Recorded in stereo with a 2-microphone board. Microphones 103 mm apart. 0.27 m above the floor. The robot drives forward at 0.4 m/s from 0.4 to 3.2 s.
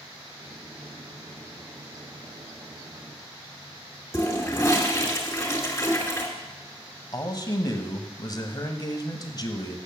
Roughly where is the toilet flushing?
Left.